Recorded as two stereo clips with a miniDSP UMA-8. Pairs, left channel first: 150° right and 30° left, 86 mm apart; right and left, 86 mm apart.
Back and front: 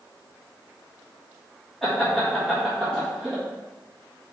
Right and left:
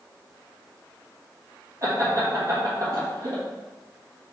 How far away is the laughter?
About 1.2 m.